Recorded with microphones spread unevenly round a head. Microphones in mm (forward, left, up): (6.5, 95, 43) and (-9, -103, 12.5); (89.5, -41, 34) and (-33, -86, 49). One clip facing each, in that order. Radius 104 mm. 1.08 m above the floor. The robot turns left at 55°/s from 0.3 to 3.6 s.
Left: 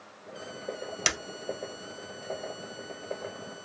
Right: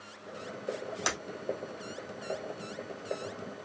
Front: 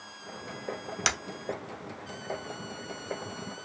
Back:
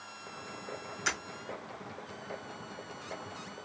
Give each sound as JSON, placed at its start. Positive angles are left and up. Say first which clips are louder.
{"t": 1.1, "sound": "breaking glass", "louder": "even, front 4 dB", "azimuth_deg": 40, "distance_m": 1.7}